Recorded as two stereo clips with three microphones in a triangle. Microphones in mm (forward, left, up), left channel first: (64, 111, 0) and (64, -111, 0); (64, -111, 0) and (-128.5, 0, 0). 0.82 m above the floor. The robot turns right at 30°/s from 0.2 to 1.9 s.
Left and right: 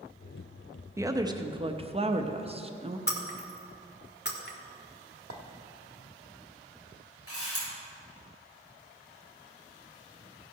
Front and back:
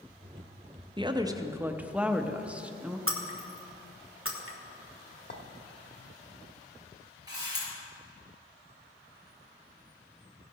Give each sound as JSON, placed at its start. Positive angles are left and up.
{"t": 1.0, "sound": "a woman speaking", "azimuth_deg": -160, "distance_m": 0.7}
{"t": 3.1, "sound": "breaking glass", "azimuth_deg": 130, "distance_m": 1.3}
{"t": 5.3, "sound": "a clink", "azimuth_deg": -70, "distance_m": 1.0}
{"t": 7.3, "sound": "a camera shutter", "azimuth_deg": 75, "distance_m": 4.5}